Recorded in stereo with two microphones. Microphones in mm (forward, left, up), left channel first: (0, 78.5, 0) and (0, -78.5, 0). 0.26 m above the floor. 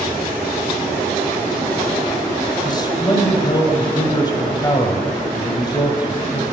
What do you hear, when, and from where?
2.6 s a man speaking: 30° left (ahead or behind), 1.1 m